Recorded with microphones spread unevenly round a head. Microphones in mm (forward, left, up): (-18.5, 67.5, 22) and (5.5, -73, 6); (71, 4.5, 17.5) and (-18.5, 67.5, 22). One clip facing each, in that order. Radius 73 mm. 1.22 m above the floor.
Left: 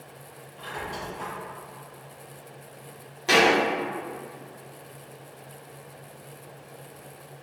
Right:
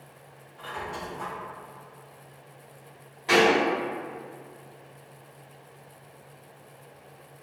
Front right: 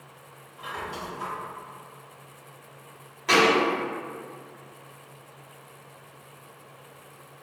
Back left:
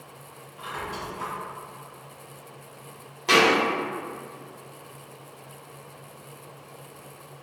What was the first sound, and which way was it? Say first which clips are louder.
A squeak: even, back left 1 dB; 65° left.